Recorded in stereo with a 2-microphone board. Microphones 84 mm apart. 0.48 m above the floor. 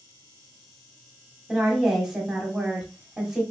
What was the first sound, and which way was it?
A woman speaking, 5° right (ahead or behind).